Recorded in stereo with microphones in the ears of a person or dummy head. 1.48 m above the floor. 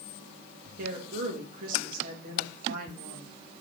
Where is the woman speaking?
50° right (ahead or behind), 2.5 m.